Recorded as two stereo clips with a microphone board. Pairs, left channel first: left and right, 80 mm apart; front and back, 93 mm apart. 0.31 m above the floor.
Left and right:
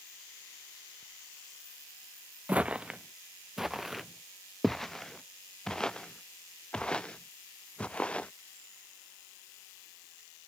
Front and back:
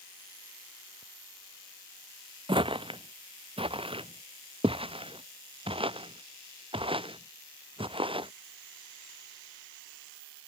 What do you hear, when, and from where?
2.5 s footsteps: 165° right; by 8.3 s 165° left